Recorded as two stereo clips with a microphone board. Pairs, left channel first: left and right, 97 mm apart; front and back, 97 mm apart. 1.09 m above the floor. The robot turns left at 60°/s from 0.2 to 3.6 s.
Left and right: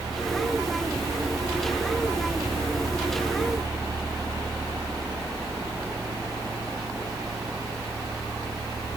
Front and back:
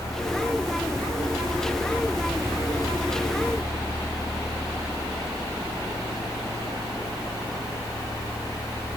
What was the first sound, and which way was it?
Only background noise.